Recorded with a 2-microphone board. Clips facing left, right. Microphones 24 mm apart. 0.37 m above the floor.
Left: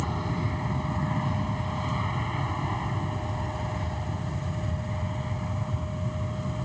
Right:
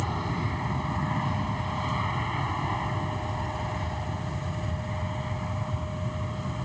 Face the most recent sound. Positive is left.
turn(degrees=-10)  # may be behind; listen again after turning